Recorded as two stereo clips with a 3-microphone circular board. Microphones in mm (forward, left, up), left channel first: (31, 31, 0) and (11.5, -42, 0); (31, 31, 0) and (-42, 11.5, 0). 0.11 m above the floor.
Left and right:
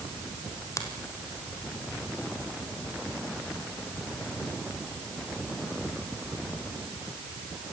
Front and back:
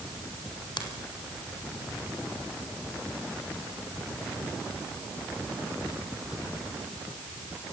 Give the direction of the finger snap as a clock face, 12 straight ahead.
11 o'clock.